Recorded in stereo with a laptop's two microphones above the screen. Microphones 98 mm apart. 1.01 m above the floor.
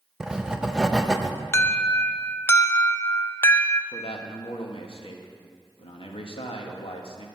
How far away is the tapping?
No tapping in this recording.